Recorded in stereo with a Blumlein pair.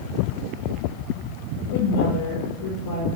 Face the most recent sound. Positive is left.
turn(degrees=50)